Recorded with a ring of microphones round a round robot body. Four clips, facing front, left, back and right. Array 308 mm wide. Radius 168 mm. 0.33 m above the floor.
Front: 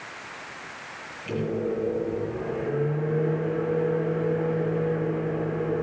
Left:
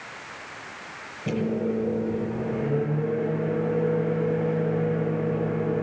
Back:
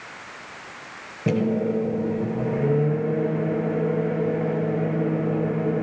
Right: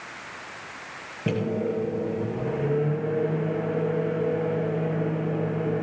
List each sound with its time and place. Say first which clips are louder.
1.3 s a microwave: even, back 5 dB; 150° right, 7.5 m